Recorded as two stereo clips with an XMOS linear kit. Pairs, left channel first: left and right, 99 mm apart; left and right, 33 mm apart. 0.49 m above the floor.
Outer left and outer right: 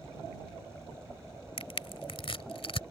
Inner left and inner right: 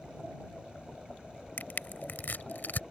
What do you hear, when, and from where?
1.6 s crushing: 70° left (ahead or behind)